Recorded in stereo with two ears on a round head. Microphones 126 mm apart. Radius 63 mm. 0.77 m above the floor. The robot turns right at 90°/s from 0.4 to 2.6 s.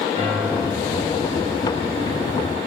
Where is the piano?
35° left, 4.5 m; by 1.0 s 85° left, 4.5 m.